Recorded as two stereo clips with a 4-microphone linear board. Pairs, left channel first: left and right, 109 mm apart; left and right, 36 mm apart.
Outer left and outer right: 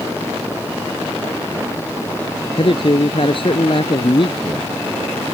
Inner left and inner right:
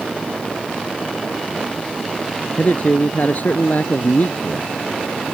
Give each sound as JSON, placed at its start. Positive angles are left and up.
{"t": 2.6, "sound": "a man speaking", "side_deg": 55}